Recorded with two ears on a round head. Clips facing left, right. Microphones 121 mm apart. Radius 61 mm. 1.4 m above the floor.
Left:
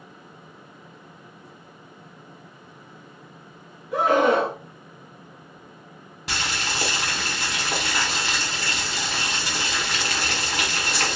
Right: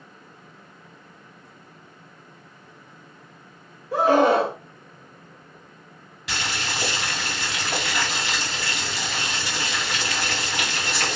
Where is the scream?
30° right (ahead or behind), 0.9 m.